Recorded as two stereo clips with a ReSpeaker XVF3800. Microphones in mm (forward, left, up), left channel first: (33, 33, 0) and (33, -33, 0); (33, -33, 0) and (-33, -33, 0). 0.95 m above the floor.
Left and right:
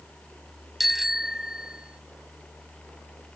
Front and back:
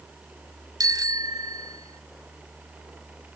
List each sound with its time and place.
0.8 s a bicycle bell: 175° right; by 2.0 s 165° right